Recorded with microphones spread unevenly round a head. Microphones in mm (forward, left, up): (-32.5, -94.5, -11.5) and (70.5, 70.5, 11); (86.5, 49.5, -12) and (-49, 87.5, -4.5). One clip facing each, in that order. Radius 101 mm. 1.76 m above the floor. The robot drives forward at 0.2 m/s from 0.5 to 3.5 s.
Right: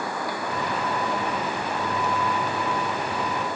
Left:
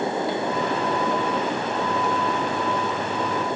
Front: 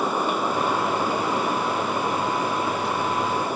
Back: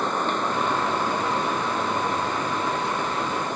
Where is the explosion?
No explosion in this recording.